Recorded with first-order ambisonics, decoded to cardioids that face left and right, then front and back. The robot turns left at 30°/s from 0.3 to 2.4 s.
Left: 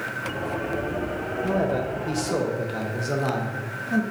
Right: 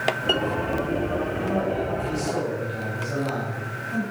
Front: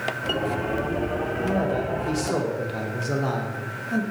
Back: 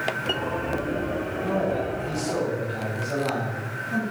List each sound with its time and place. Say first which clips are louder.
1.4 s a man speaking: left 4 dB, back 1 dB; 75° left, 0.5 m; by 4.0 s 45° left, 0.5 m